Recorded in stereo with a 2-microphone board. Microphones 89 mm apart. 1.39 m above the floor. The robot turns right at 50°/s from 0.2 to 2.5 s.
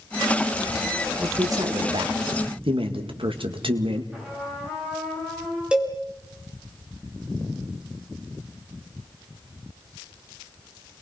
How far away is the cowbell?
About 4 m.